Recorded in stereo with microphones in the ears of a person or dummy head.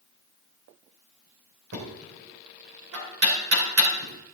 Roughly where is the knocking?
Right.